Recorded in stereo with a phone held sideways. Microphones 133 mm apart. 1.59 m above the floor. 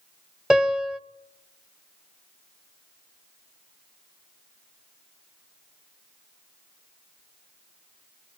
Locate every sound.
0.5 s a piano: 5° right (ahead or behind), 1.8 m